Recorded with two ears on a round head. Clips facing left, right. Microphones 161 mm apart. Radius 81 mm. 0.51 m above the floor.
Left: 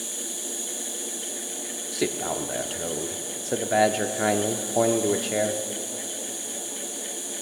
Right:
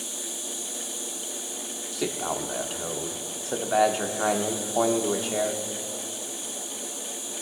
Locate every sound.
0.0 s an insect: 25° left (ahead or behind), 3.5 m
1.9 s a man speaking: 20° left (ahead or behind), 0.8 m